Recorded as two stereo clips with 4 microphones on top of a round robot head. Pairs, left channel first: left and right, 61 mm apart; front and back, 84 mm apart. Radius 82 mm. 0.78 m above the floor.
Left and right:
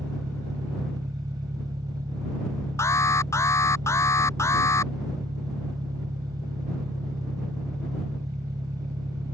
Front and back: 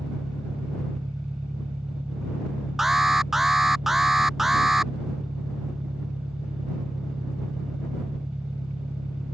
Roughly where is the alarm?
Left.